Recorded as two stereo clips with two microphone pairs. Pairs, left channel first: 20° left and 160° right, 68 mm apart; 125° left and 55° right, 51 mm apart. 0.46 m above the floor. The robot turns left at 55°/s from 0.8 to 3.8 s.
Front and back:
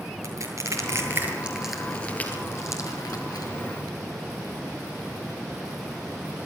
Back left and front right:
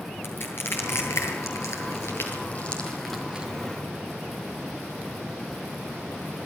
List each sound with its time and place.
0.2 s crushing: 165° left, 8 m; by 3.5 s 15° left, 8 m